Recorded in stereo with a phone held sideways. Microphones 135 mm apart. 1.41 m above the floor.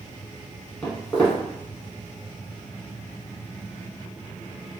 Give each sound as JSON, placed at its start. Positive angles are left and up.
{"t": 0.8, "sound": "footsteps", "side_deg": 10, "distance_m": 1.5}